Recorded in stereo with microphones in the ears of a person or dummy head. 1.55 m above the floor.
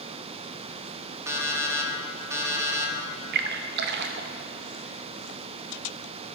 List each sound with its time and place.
1.3 s an alarm clock: 20° right (ahead or behind), 1.7 m
3.3 s a splash: 45° right (ahead or behind), 0.5 m